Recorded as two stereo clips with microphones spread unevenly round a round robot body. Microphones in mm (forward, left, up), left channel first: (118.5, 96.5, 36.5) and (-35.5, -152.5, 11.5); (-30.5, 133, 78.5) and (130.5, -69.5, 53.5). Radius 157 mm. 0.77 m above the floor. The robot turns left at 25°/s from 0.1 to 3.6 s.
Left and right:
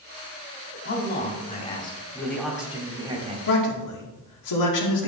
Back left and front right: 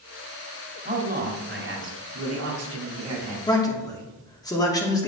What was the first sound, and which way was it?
A man speaking, 5° left.